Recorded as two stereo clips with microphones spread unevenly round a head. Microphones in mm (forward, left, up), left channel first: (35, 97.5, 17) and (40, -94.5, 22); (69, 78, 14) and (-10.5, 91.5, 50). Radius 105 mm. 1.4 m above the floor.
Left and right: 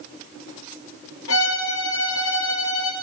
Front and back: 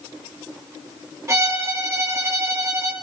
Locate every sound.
1.3 s a violin: 120° left, 5 m